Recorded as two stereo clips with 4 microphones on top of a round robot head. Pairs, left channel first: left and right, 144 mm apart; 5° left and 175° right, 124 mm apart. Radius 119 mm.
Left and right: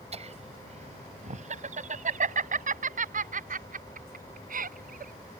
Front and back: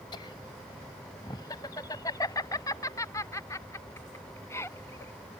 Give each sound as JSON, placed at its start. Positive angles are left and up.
{"t": 0.1, "sound": "laughter", "azimuth_deg": -50}